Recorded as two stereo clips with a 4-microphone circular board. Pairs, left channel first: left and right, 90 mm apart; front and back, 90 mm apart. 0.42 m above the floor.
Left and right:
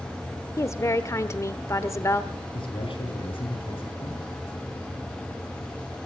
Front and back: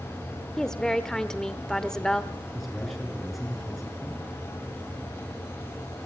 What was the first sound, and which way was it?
A woman speaking, 80° left.